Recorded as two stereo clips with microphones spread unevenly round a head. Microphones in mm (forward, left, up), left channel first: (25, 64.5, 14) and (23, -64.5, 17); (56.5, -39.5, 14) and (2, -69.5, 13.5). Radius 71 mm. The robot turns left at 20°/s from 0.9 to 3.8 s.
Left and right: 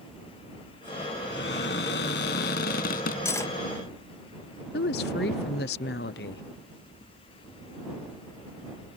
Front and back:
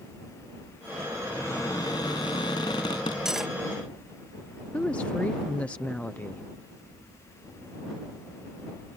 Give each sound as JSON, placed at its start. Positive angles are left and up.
{"t": 1.3, "sound": "a cupboard door", "azimuth_deg": 105}
{"t": 3.2, "sound": "cutlery clinking", "azimuth_deg": 135}
{"t": 4.7, "sound": "a woman speaking", "azimuth_deg": 110}